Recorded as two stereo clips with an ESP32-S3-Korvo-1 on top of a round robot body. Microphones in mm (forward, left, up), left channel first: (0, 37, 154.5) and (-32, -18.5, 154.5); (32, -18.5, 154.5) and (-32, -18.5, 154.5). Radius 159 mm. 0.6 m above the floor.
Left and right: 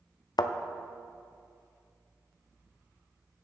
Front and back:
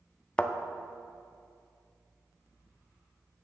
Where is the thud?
75° left, 0.5 m.